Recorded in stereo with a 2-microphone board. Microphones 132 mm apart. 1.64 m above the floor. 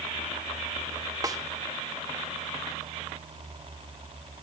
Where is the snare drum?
25° right (ahead or behind), 1.1 m.